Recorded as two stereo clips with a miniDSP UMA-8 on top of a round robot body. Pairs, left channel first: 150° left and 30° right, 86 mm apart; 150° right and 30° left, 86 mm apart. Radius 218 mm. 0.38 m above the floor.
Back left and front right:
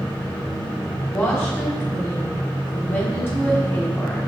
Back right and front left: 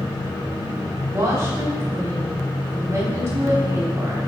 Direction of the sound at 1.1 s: 90° left.